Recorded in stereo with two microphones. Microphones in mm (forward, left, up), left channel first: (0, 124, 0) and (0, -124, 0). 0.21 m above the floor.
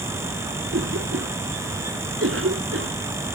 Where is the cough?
60° right (ahead or behind).